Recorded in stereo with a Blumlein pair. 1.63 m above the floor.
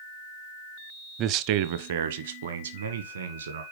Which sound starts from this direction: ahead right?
A man speaking, at 1.2 s.